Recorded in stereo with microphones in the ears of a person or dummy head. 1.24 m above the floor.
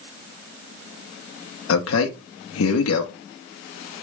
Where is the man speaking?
75° left (ahead or behind), 0.6 m.